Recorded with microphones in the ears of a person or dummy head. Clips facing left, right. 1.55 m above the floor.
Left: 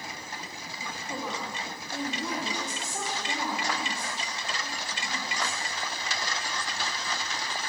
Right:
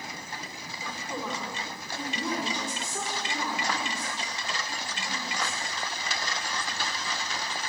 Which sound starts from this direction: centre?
A woman speaking, at 0.8 s.